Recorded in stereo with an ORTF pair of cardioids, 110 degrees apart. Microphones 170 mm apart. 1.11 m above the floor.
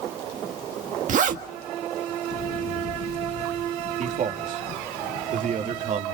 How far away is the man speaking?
About 3 m.